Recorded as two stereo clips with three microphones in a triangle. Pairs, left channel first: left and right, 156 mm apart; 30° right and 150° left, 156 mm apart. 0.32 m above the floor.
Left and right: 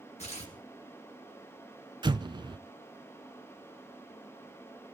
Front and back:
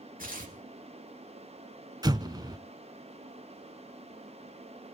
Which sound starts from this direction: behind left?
Tearing paper, at 0.2 s.